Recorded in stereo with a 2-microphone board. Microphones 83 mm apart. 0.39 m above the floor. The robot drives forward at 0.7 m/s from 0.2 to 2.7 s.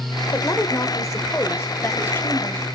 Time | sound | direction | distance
0.3 | a woman speaking | 40° left (ahead or behind) | 1.3 m